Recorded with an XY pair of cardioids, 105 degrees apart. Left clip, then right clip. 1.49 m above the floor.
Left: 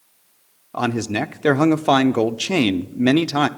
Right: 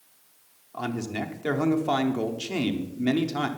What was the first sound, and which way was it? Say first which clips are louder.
A man speaking: left 9 dB; 70° left.